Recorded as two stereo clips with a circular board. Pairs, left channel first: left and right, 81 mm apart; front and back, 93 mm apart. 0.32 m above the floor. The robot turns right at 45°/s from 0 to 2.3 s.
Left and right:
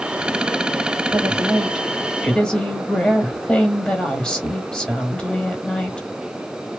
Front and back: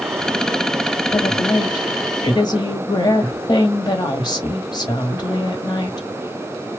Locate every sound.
1.1 s a woman speaking: 40° right, 1.2 m; by 6.1 s 15° left, 1.2 m